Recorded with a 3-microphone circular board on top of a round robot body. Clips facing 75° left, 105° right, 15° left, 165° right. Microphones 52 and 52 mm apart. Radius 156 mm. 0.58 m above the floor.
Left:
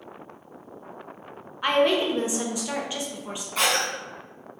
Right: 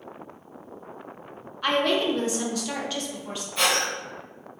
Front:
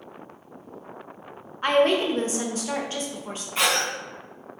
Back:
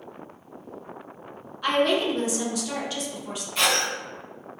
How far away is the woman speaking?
About 0.8 m.